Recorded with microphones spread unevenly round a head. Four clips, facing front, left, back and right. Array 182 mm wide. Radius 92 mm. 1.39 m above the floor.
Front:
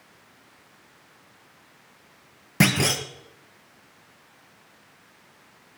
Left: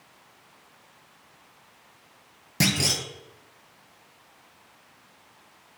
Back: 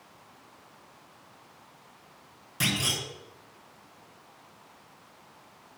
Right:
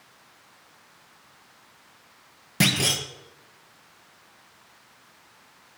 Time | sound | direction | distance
2.6 | a clunk | 5° right | 0.9 m